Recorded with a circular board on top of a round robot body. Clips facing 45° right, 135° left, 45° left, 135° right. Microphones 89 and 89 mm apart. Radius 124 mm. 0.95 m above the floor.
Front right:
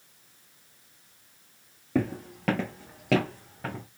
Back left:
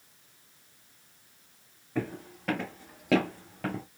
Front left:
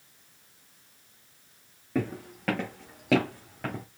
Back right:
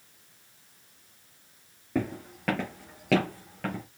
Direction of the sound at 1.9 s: 50° right.